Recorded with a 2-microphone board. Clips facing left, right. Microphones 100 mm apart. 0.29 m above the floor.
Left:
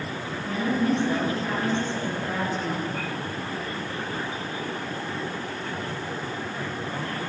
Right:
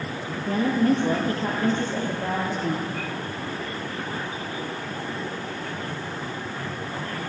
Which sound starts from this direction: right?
A woman speaking, at 0.5 s.